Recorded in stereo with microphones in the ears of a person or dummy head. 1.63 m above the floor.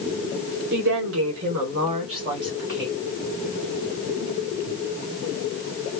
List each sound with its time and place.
0.7 s a woman speaking: 55° right (ahead or behind), 0.9 m; by 2.9 s 15° right (ahead or behind), 1.3 m